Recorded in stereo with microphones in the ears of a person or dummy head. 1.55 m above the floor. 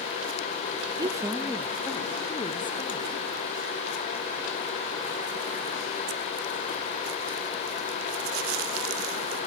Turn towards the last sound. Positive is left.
turn(degrees=30)  # may be behind; listen again after turning